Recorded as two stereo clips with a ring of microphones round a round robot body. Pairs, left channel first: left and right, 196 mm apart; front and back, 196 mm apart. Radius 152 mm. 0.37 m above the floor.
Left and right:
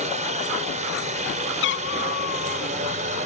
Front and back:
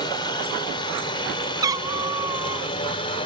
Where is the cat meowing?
110° left.